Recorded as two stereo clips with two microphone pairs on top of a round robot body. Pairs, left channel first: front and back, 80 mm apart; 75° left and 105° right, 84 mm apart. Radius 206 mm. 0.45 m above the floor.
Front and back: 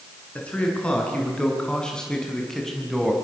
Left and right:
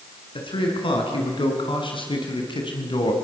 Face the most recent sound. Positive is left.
turn(degrees=90)